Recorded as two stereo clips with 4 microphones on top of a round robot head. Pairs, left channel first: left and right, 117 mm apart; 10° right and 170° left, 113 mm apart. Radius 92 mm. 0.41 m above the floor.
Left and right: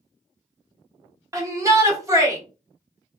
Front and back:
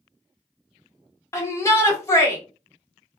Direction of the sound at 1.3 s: 50° right.